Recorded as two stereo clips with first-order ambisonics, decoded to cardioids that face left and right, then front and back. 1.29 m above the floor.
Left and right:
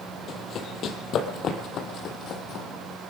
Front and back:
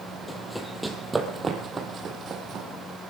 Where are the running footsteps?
75° left, 1.5 m; by 2.7 s 130° left, 1.9 m.